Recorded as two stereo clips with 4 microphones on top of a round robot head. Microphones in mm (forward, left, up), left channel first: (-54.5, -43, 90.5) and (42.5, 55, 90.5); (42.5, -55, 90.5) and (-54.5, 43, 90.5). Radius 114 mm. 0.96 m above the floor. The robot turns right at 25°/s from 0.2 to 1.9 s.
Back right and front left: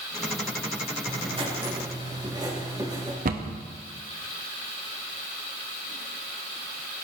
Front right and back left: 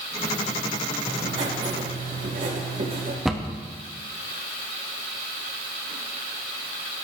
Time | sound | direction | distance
1.1 | writing | 85° left | 3.5 m
3.2 | a cupboard door | 45° left | 1.2 m